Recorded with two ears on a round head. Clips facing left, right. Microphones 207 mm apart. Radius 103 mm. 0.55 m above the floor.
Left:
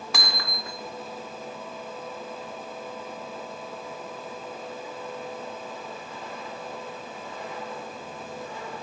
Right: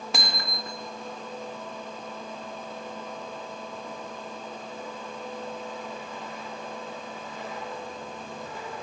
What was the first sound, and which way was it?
Hammering, 20° right (ahead or behind).